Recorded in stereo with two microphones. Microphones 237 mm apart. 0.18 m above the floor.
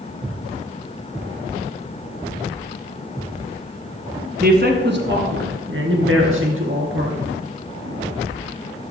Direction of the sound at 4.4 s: 40° right (ahead or behind).